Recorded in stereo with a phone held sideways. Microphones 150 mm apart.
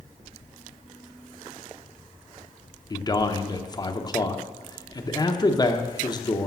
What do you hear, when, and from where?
2.9 s a man speaking: 30° left (ahead or behind), 0.9 m